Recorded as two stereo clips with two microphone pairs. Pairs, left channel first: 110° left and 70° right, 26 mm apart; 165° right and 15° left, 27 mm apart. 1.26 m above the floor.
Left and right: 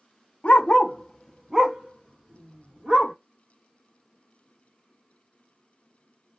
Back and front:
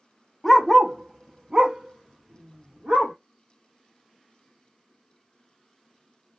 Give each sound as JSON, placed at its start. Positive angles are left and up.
{"t": 0.4, "sound": "a dog barking", "azimuth_deg": 110, "distance_m": 0.8}